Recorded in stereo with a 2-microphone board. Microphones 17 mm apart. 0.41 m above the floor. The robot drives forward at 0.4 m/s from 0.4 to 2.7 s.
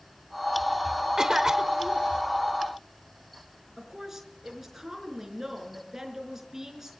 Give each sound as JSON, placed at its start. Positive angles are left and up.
{"t": 1.2, "sound": "a cough", "side_deg": -35, "distance_m": 1.3}
{"t": 3.8, "sound": "a woman speaking", "side_deg": -20, "distance_m": 5.0}